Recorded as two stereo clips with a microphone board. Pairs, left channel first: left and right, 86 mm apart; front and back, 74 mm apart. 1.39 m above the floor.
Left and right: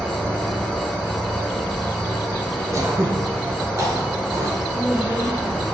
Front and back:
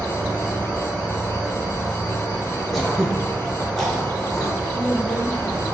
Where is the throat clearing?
90° right, 0.7 m.